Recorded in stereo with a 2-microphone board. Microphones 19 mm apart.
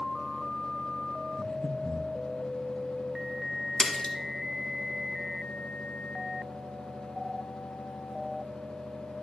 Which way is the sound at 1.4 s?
80° left.